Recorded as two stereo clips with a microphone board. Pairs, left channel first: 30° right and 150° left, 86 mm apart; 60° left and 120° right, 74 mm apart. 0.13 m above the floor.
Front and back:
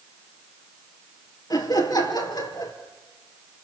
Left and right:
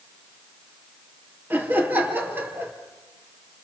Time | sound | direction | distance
1.5 | laughter | 60° right | 3.5 m